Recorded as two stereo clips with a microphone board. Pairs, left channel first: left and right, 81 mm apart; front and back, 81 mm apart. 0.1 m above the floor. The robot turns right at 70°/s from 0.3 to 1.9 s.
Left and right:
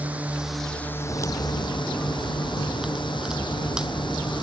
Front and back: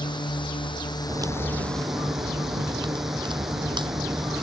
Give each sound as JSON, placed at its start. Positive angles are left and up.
{"t": 0.0, "sound": "a drone", "azimuth_deg": -20}
{"t": 1.1, "sound": "a crack", "azimuth_deg": 130}